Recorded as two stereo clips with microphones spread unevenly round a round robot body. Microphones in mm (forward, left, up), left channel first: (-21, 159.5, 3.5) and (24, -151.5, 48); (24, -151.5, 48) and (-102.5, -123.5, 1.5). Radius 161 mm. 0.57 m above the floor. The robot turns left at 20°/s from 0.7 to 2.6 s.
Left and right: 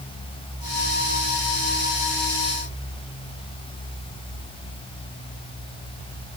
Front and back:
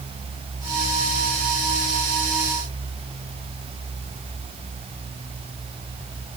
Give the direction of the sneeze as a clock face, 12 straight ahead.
I don't hear a sneeze.